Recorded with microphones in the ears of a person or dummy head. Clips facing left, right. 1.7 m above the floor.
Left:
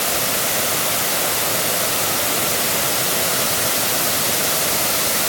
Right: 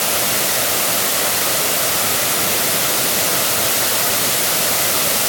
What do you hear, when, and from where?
Only background noise.